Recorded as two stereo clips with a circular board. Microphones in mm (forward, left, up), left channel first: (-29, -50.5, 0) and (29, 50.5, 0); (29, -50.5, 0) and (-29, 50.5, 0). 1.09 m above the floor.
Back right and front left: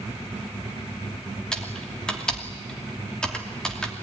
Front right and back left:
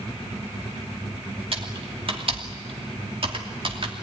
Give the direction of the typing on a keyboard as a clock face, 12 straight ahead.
7 o'clock.